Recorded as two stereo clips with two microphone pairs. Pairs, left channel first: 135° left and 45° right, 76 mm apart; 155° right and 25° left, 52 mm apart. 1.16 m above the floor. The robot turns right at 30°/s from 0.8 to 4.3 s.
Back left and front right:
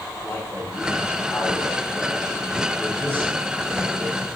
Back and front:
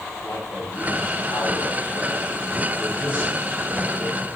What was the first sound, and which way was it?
A man speaking, straight behind.